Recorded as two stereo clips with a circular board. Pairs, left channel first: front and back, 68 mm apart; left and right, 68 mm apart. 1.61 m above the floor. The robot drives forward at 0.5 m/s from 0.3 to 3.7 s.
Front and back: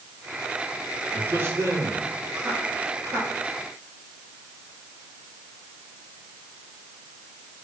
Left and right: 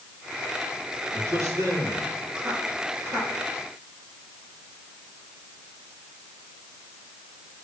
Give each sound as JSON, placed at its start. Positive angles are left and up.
{"t": 1.1, "sound": "a man speaking", "azimuth_deg": -125, "distance_m": 3.0}